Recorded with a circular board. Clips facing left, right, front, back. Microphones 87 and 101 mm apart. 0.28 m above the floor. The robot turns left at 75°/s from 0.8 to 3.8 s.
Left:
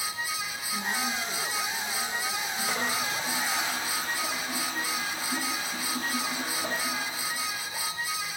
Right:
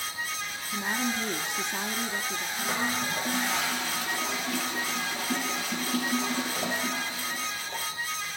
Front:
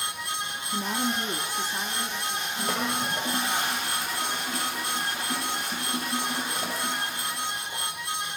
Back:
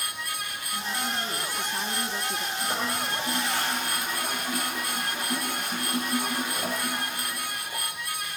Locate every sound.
0.7 s a woman speaking: 20° right, 3 m; by 2.5 s 145° right, 3 m
2.6 s a toilet flushing: 5° left, 9.5 m; by 7.9 s 90° right, 9.5 m